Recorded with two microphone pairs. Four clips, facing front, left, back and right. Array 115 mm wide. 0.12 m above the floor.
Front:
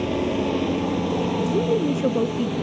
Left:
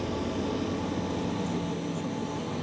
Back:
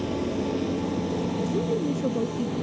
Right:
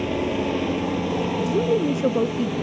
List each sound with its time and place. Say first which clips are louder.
0.0 s a helicopter: right 7 dB, front 4 dB; 30° right; by 2.6 s 40° right
1.5 s a woman speaking: right 12 dB, front 6 dB; 45° right